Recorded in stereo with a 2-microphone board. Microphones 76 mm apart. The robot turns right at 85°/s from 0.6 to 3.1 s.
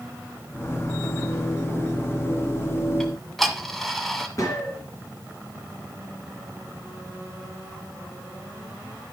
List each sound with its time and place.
3.0 s ticking: 10° left (ahead or behind), 1.2 m; by 4.3 s 5° left (ahead or behind), 1.2 m
4.4 s a gunshot: 45° left (ahead or behind), 3.5 m